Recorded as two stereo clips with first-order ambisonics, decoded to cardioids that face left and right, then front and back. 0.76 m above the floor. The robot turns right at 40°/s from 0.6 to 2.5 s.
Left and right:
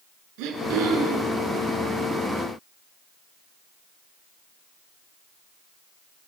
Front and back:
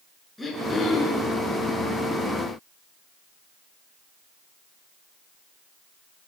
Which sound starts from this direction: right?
Throat clearing, at 0.4 s.